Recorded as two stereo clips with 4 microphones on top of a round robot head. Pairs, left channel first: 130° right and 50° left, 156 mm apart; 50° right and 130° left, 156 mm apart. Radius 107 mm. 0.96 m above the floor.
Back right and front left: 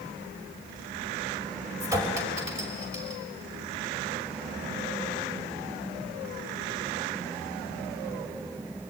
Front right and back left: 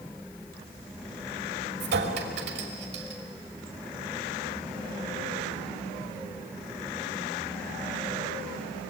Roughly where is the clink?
Behind left.